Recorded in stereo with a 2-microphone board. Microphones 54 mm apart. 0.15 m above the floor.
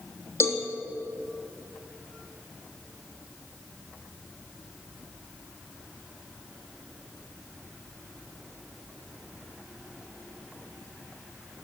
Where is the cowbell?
55° left (ahead or behind), 3 m.